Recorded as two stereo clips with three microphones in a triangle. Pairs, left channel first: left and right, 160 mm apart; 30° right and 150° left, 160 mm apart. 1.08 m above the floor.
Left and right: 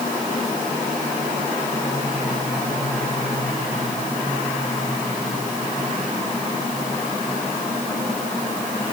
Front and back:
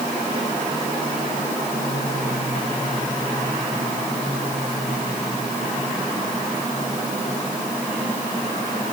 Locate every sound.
Only background noise.